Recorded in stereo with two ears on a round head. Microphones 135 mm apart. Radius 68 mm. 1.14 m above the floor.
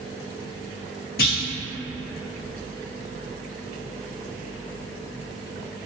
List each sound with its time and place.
1.2 s a clunk: 65° left (ahead or behind), 0.6 m